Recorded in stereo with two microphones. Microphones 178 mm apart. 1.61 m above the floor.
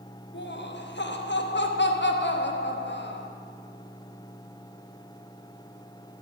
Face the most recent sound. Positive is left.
turn(degrees=75)  # may be behind; listen again after turning